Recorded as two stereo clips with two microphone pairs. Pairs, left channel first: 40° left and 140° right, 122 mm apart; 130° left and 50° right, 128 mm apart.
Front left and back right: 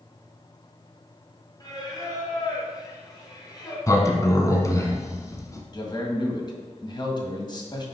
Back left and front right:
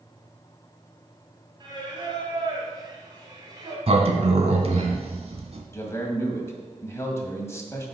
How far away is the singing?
About 2 m.